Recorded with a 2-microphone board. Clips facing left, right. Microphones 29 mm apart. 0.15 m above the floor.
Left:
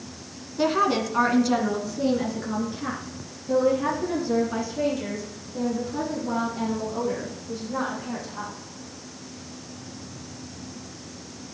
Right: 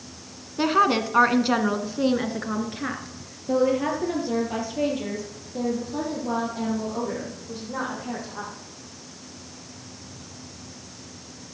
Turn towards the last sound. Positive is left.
turn(degrees=-25)  # may be behind; listen again after turning